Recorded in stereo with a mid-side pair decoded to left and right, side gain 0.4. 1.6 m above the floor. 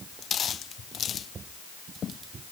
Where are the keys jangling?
I don't hear keys jangling.